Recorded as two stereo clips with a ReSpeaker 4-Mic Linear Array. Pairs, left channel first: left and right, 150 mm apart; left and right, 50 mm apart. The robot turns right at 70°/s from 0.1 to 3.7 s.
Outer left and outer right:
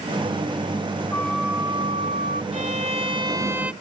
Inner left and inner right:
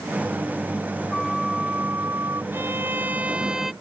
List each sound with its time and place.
1.1 s a flute: 165° left; by 2.4 s 105° right
2.5 s a violin: 90° right; by 3.7 s 10° right